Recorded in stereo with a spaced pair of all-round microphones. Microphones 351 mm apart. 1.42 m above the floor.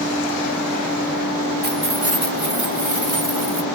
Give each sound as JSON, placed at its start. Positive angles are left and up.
{"t": 1.6, "sound": "keys jangling", "side_deg": -25}